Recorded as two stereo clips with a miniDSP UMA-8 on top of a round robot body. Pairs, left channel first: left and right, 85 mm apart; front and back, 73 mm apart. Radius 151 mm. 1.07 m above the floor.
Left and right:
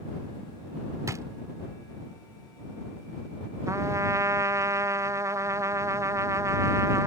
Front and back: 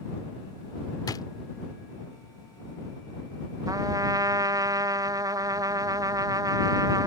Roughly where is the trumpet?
Behind right.